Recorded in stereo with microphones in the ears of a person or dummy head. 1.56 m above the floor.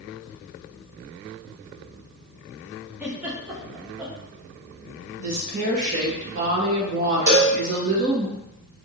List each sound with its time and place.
3.0 s a giggle: 10° right (ahead or behind), 0.9 m
5.2 s a woman speaking: 40° right (ahead or behind), 1.5 m
7.3 s a cowbell: 55° right (ahead or behind), 1.9 m